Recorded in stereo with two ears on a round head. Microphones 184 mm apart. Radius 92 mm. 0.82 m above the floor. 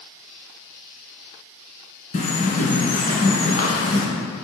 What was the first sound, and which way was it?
A bird, 35° left (ahead or behind).